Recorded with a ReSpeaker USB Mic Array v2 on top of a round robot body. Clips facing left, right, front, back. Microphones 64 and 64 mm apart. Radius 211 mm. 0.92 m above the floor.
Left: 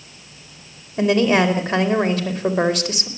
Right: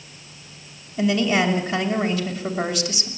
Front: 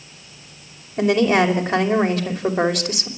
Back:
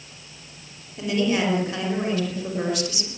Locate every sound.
1.0 s a woman speaking: 40° left, 5 m